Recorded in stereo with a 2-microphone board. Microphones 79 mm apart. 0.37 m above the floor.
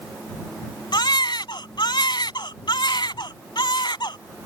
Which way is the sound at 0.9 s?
70° left (ahead or behind).